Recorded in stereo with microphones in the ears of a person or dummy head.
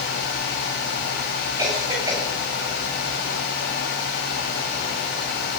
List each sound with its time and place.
1.6 s a cough: 10° right (ahead or behind), 9 m